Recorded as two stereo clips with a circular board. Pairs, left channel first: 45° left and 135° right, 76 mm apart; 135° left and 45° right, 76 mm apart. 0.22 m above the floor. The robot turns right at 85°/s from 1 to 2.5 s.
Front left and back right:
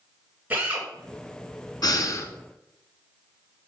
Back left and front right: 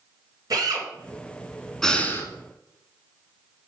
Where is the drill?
65° right, 2.5 m.